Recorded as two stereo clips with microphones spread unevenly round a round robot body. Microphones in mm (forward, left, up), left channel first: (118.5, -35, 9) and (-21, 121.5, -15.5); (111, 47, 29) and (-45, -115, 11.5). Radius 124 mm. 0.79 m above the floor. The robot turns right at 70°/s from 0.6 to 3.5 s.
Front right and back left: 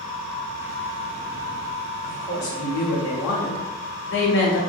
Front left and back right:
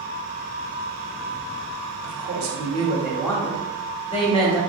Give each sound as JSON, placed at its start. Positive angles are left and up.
{"t": 2.0, "sound": "a woman speaking", "azimuth_deg": -125, "distance_m": 0.9}